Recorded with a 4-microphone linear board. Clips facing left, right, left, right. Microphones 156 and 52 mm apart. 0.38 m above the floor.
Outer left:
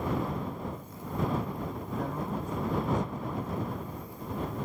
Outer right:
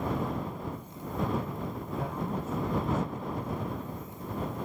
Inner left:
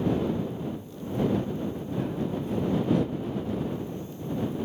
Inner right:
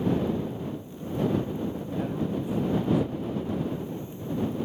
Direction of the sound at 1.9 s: 5° right (ahead or behind).